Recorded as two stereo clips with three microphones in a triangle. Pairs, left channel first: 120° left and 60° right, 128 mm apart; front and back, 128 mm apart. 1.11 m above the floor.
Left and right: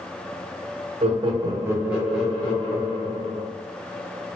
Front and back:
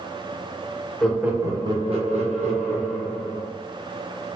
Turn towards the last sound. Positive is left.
turn(degrees=-170)